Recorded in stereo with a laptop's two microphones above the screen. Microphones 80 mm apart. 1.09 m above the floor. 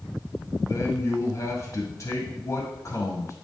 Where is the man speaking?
40° left (ahead or behind), 1.8 m.